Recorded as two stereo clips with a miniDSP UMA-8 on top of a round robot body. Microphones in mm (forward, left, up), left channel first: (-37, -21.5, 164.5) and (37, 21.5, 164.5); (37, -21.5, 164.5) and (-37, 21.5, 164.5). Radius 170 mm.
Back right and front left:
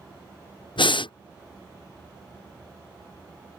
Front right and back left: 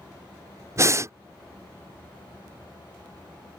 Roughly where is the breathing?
Behind right.